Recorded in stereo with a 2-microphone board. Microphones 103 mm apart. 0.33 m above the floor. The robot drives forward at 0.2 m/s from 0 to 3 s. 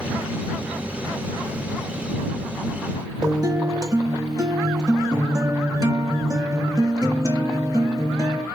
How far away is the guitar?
About 0.7 m.